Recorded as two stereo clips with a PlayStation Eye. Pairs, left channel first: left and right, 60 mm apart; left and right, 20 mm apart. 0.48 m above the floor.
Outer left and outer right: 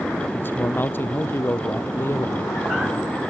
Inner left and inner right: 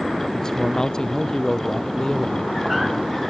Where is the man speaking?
35° left (ahead or behind); by 2.5 s 40° left (ahead or behind).